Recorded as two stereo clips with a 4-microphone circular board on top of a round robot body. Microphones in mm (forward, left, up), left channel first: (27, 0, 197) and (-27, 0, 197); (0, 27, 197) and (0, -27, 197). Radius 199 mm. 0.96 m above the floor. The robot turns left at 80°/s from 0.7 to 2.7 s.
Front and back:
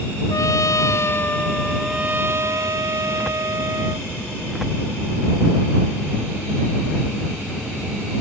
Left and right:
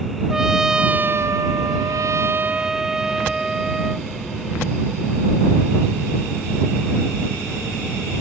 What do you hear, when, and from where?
0.3 s a trumpet: 10° right; by 4.1 s 170° right